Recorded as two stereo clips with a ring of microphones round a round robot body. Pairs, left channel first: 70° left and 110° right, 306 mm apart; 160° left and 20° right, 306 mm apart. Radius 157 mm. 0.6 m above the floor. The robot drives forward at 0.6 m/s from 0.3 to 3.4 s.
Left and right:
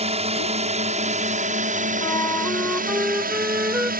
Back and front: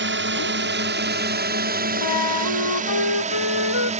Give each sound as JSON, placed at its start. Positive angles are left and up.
{"t": 0.0, "sound": "a drone", "azimuth_deg": -50}
{"t": 2.0, "sound": "a flute", "azimuth_deg": 145}